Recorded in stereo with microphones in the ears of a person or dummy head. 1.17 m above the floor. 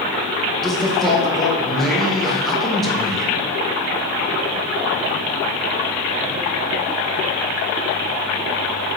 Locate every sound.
0.6 s a man speaking: 5° left (ahead or behind), 1.5 m